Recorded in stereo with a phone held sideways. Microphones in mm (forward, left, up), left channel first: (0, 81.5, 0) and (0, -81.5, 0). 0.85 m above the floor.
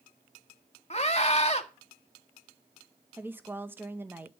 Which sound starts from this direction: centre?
A woman speaking, at 3.2 s.